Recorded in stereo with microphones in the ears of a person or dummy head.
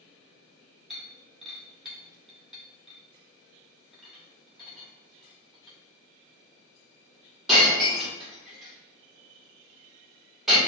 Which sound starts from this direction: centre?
Breaking glass, at 0.9 s.